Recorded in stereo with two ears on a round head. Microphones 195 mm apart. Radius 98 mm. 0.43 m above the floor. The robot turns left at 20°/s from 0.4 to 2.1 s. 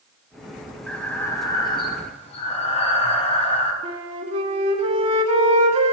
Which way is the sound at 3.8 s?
30° right (ahead or behind).